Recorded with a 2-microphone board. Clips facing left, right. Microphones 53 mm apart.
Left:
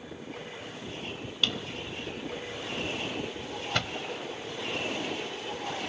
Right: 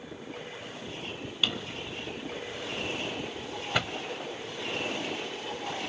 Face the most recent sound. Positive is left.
turn(degrees=-10)  # may be behind; listen again after turning